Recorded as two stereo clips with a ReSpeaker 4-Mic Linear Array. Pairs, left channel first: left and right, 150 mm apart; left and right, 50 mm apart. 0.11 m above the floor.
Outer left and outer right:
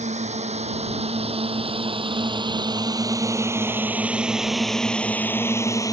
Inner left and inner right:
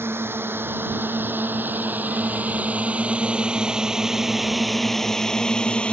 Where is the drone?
50° right (ahead or behind); by 5.9 s 25° left (ahead or behind).